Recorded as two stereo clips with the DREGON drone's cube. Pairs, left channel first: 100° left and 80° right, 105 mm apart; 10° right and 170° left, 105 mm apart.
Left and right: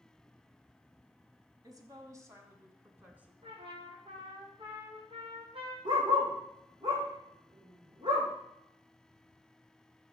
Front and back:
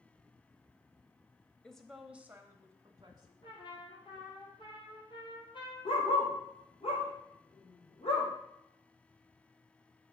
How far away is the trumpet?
About 2.5 m.